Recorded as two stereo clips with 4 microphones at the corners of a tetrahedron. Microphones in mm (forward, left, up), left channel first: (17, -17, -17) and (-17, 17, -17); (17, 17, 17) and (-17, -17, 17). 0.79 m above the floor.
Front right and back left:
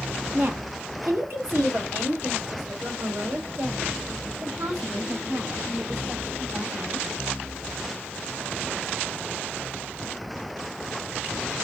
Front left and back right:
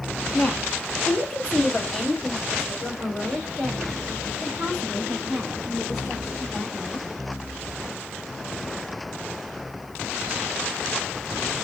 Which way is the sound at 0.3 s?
105° left.